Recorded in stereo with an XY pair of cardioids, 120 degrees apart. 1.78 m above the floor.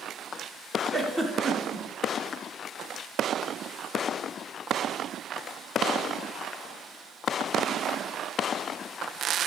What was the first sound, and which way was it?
A giggle, 20° right.